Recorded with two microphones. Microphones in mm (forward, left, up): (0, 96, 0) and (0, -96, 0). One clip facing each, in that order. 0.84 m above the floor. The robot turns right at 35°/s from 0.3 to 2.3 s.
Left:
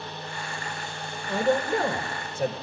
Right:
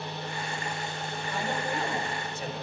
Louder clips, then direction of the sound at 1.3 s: Left 9 dB; 85° left.